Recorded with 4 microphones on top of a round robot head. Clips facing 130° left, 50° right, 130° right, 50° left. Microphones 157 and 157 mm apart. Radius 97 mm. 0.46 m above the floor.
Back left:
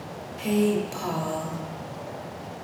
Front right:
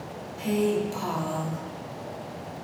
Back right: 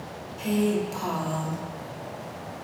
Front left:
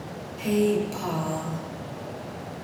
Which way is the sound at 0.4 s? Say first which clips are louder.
Back left 2 dB, front left 2 dB; 105° left.